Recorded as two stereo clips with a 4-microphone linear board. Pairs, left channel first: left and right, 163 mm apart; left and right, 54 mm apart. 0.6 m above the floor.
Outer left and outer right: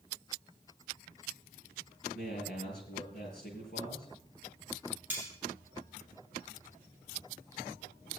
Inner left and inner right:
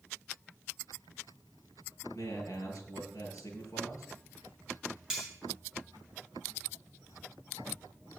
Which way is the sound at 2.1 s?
80° left.